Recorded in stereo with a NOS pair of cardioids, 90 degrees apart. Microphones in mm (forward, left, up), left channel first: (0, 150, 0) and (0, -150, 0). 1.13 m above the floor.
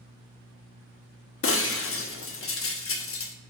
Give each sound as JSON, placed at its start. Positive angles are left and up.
{"t": 1.4, "sound": "breaking glass", "azimuth_deg": 50, "distance_m": 1.1}